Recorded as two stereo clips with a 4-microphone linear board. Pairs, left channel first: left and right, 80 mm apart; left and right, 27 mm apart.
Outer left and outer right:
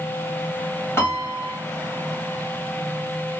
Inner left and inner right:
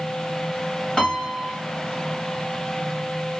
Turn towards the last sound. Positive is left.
turn(degrees=35)  # may be behind; listen again after turning